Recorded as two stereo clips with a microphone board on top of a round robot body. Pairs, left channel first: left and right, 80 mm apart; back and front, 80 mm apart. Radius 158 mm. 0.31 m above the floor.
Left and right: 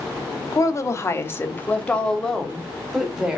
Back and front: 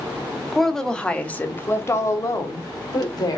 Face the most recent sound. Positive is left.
turn(degrees=-165)